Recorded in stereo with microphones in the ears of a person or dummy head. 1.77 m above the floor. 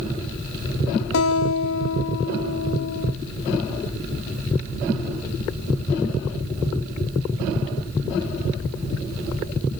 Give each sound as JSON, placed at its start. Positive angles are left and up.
{"t": 1.1, "sound": "a guitar", "side_deg": 80, "distance_m": 1.2}